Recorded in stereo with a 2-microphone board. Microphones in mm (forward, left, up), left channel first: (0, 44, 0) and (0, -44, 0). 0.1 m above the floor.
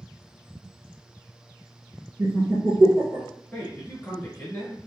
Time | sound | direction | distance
2.2 | laughter | 30° right (ahead or behind) | 1.4 m
3.5 | a man speaking | 20° left (ahead or behind) | 1.2 m